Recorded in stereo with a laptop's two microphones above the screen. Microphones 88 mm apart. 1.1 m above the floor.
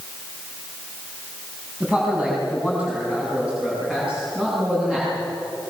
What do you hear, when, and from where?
1.8 s a man speaking: 15° right (ahead or behind), 7 m; by 5.1 s 10° right (ahead or behind), 9.5 m